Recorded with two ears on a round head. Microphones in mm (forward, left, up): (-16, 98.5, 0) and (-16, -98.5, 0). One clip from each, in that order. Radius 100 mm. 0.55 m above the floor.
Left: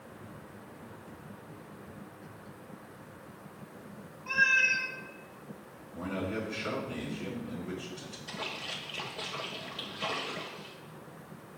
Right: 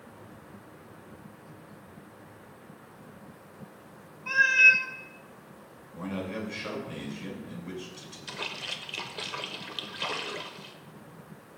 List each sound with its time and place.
4.3 s a cat meowing: 45° right (ahead or behind), 1.2 m
5.9 s a man speaking: 45° right (ahead or behind), 5 m
8.3 s a splash: 75° right (ahead or behind), 1.2 m